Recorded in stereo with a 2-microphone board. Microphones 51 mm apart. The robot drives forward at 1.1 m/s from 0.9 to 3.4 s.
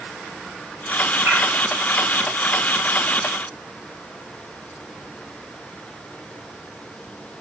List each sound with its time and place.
1.2 s a bird: 50° right (ahead or behind), 5 m